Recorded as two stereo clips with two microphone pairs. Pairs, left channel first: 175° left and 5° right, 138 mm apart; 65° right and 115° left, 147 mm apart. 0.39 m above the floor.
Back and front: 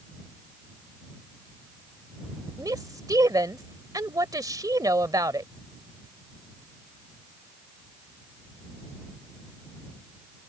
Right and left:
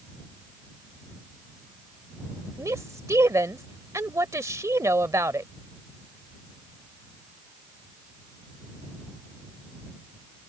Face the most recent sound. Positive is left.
turn(degrees=50)